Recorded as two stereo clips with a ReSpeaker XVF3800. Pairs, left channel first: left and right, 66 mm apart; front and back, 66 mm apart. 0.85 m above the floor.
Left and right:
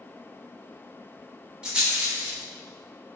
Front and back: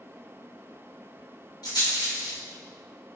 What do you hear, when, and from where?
1.6 s a rattle: 15° right, 0.9 m